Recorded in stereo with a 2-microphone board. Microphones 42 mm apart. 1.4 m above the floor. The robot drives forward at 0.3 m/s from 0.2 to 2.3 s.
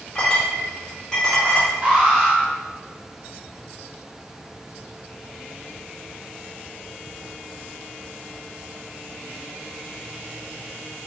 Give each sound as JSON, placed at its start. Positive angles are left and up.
{"t": 0.1, "sound": "a clink", "side_deg": 15, "distance_m": 1.2}
{"t": 1.8, "sound": "an alarm", "side_deg": -20, "distance_m": 1.7}